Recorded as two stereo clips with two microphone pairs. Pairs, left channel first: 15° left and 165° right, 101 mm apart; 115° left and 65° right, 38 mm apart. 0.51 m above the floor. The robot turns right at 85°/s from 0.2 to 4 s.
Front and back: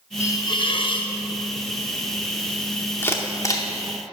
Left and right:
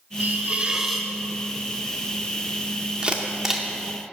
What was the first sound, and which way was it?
A hiss, 40° right.